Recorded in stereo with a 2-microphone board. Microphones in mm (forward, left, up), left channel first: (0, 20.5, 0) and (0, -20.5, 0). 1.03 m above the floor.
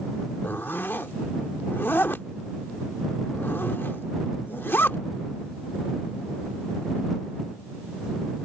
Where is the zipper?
55° left (ahead or behind).